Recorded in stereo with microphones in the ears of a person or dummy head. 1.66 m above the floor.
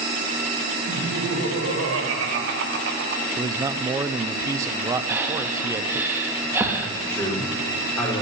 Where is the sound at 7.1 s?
10° left (ahead or behind), 4.5 m.